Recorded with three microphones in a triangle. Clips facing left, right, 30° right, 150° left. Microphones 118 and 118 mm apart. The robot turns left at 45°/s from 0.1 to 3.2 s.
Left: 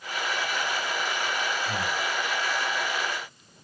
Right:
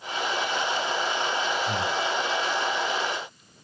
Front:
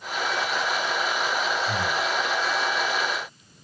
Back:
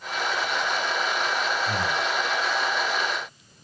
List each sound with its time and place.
1.7 s breathing: 145° right, 0.8 m; by 2.0 s 165° right, 0.8 m